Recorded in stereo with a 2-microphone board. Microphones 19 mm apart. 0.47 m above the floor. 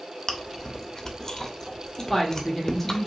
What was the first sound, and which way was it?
Chewing, 30° left (ahead or behind).